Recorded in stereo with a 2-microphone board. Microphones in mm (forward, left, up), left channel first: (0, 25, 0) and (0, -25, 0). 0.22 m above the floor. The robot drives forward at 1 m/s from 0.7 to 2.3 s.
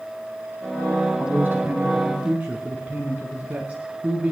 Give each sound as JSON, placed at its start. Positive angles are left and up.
{"t": 1.2, "sound": "a man speaking", "side_deg": -45, "distance_m": 1.4}